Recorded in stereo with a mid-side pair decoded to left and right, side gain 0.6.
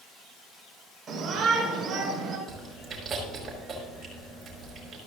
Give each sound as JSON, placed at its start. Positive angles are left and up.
{"t": 1.1, "sound": "a shout", "azimuth_deg": -35, "distance_m": 5.0}
{"t": 2.5, "sound": "chewing", "azimuth_deg": -35, "distance_m": 5.5}